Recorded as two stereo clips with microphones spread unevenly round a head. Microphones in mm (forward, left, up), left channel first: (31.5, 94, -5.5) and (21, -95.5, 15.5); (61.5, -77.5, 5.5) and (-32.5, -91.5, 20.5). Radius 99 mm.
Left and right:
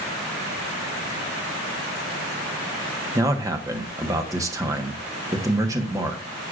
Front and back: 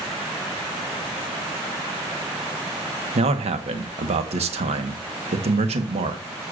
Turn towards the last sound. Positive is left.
turn(degrees=-170)